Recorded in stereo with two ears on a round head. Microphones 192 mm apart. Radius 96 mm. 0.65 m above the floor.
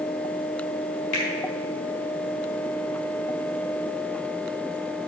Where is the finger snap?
80° left, 4 m.